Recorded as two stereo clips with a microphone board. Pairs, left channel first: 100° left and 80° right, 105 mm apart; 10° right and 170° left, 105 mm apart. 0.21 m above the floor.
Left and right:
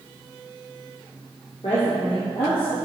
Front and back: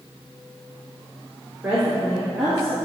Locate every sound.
1.6 s a woman speaking: 100° left, 3 m; by 2.8 s 75° left, 3.5 m